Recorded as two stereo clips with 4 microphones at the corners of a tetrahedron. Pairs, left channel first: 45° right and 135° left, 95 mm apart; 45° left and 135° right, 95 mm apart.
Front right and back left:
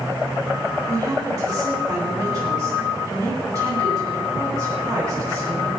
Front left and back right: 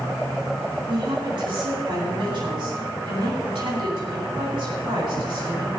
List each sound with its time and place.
0.9 s a woman speaking: 165° right, 9.5 m